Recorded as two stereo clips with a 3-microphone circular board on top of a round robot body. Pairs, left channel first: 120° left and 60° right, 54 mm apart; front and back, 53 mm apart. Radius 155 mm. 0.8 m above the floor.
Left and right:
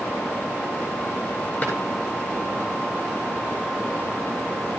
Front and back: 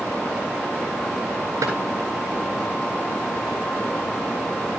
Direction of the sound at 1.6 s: 175° right.